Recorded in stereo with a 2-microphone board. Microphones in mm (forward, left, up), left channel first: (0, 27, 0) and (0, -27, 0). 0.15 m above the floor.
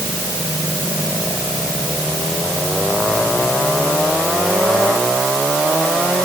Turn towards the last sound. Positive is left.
No sound to turn to.